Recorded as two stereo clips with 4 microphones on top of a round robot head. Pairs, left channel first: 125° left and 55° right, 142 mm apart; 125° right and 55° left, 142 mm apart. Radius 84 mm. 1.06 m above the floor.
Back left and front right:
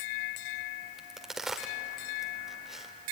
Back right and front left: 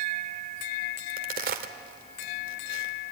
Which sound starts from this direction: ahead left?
A crack, at 1.0 s.